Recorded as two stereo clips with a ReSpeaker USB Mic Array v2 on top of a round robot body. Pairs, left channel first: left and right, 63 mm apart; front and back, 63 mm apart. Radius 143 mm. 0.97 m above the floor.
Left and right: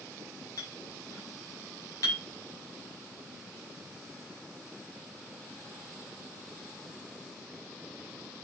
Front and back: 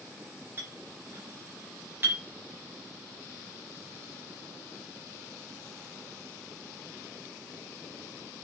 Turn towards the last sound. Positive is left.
turn(degrees=120)